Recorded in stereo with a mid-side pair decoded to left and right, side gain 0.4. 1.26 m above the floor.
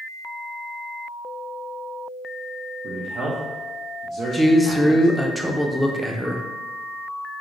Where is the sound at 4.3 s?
Straight ahead, 0.6 m.